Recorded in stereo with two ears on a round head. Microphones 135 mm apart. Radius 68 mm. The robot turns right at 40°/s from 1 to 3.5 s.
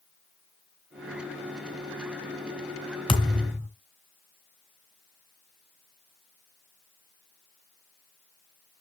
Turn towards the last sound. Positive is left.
turn(degrees=20)  # may be behind; listen again after turning